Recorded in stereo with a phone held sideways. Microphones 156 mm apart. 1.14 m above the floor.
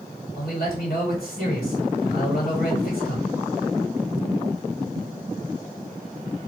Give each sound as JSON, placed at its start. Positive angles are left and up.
{"t": 0.3, "sound": "a man speaking", "side_deg": 75, "distance_m": 1.8}